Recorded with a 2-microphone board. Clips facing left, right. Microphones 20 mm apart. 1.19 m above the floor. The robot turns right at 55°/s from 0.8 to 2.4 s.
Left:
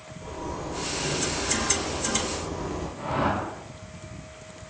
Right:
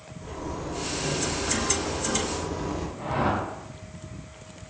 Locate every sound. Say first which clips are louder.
0.2 s a zipper: even; 175° left, 0.7 m; by 2.9 s 95° right, 0.7 m
3.0 s a whoosh: even; 35° left (ahead or behind), 0.7 m